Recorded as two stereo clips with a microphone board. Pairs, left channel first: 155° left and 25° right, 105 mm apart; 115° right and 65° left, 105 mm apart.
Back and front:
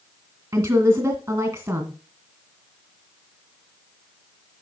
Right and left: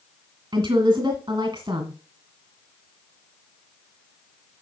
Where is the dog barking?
No dog barking in this recording.